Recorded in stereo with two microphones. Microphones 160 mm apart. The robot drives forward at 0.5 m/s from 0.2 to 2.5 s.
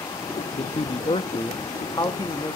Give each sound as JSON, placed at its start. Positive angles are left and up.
{"t": 0.6, "sound": "a man speaking", "side_deg": 40, "distance_m": 0.6}